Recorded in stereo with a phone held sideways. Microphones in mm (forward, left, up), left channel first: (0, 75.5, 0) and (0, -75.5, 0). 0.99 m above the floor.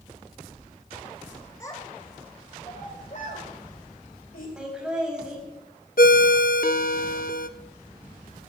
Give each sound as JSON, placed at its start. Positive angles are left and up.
{"t": 1.6, "sound": "a child speaking", "side_deg": 20, "distance_m": 2.5}
{"t": 4.6, "sound": "laughter", "side_deg": -5, "distance_m": 6.5}
{"t": 6.0, "sound": "a ringtone", "side_deg": 75, "distance_m": 0.8}